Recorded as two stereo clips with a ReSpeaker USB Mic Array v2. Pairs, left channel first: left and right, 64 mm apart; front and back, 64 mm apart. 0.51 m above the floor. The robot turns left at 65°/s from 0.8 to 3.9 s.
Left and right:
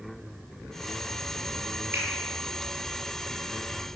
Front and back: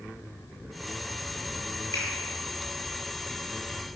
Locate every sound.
1.9 s a finger snap: 40° right, 7.5 m; by 2.1 s 45° right, 7.5 m